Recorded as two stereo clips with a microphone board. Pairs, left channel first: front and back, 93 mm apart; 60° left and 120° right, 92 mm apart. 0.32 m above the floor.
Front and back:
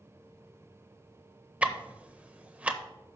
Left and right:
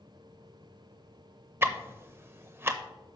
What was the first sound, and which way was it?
Ticking, 125° right.